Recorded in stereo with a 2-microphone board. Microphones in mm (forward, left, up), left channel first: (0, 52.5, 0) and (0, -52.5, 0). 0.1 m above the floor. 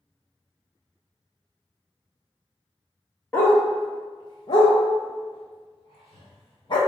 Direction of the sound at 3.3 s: 15° left (ahead or behind).